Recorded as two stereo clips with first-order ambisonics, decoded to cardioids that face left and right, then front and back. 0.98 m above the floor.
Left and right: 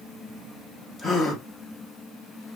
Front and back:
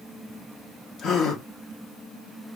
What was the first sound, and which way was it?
A gasp, 35° left.